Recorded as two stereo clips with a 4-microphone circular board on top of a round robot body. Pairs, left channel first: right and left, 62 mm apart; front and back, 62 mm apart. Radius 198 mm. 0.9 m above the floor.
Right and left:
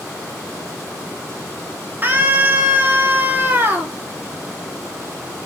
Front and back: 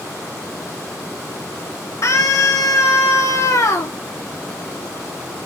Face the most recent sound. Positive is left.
turn(degrees=30)